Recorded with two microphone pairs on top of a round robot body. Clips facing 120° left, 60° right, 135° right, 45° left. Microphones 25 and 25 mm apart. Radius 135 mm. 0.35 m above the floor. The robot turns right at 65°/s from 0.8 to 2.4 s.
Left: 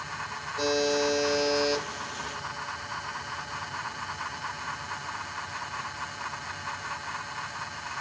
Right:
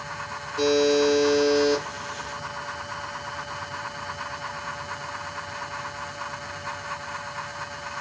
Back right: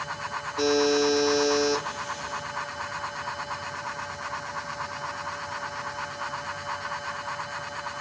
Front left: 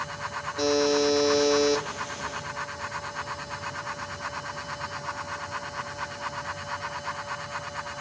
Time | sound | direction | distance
0.6 | a buzzer | 90° right | 3.5 m